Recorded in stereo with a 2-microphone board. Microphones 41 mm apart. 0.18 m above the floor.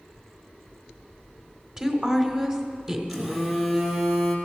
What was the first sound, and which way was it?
A woman speaking, 20° right (ahead or behind).